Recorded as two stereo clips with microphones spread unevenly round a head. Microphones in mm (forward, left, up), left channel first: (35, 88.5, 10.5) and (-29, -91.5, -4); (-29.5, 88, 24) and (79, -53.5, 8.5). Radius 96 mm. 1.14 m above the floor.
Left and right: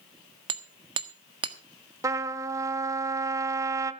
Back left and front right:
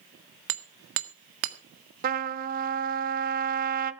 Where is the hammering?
45° right, 1.5 m.